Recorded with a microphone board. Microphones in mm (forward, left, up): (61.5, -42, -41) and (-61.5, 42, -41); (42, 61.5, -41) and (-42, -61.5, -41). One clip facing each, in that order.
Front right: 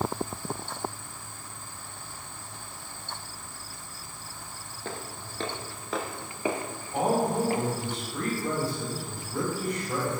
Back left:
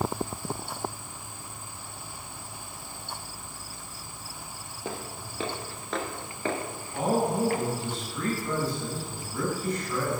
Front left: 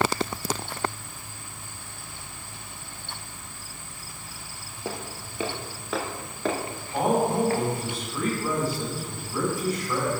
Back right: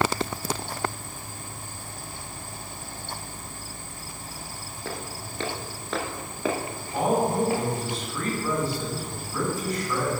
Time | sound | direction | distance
4.8 | footsteps | 95° left | 1.4 m
6.9 | a man speaking | 25° right | 4.5 m